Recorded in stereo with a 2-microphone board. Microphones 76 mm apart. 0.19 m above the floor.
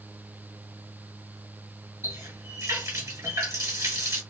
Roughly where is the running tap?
Right.